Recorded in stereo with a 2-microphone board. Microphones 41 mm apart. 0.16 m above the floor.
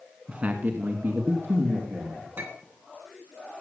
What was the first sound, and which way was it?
A man speaking, 25° right (ahead or behind).